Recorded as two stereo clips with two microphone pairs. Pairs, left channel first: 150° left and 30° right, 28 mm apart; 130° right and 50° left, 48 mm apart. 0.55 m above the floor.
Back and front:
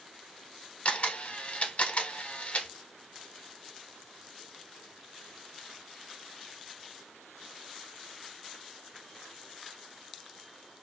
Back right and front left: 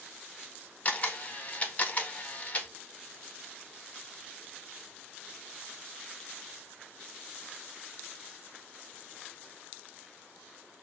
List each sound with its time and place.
0.8 s a camera shutter: 175° left, 0.5 m